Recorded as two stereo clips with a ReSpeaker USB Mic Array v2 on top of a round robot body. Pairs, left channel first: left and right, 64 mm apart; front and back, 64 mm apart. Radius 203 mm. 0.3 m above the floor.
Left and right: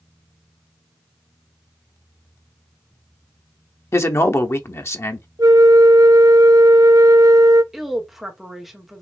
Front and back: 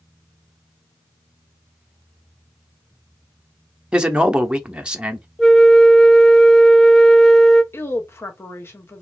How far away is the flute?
About 1.0 m.